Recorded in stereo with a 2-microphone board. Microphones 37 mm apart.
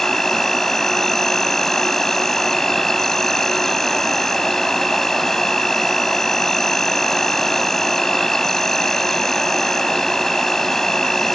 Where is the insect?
10° left (ahead or behind).